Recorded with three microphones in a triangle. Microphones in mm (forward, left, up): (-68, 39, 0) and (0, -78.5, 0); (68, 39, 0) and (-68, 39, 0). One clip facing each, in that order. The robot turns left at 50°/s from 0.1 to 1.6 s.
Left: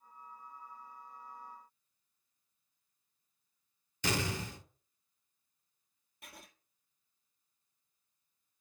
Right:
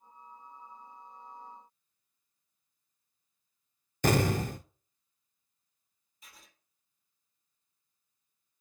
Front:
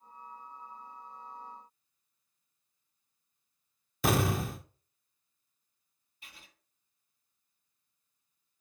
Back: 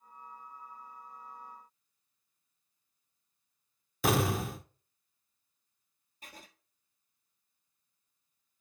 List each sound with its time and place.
4.0 s an explosion: 90° right, 0.5 m
6.2 s writing: 135° left, 1.3 m